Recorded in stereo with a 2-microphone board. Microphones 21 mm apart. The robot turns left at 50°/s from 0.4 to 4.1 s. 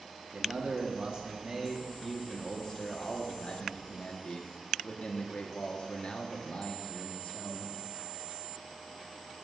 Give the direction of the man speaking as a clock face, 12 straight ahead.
3 o'clock.